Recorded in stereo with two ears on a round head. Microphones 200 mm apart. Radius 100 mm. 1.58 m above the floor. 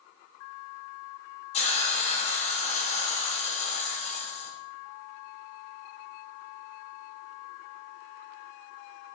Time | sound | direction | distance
1.5 | a hiss | 30° left (ahead or behind) | 3 m